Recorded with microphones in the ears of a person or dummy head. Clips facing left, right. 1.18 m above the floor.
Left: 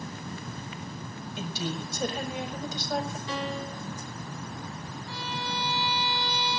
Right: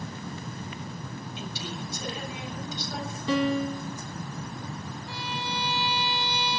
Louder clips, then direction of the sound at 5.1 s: Even; 15° right (ahead or behind).